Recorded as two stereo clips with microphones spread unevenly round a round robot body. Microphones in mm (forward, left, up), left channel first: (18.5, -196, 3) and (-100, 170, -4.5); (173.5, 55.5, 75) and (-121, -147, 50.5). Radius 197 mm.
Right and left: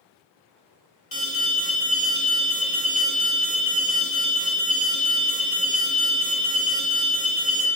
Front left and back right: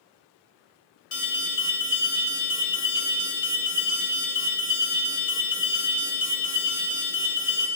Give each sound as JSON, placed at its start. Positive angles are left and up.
{"t": 1.1, "sound": "an alarm", "azimuth_deg": 0, "distance_m": 1.4}